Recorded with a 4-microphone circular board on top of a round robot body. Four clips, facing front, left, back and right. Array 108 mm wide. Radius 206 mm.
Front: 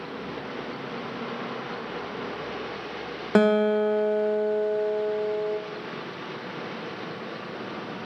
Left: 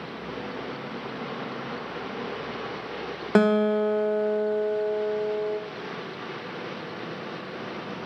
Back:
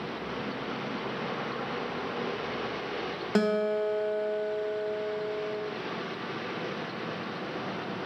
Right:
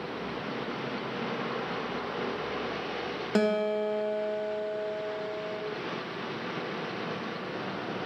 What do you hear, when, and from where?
3.4 s a guitar: 50° left, 0.9 m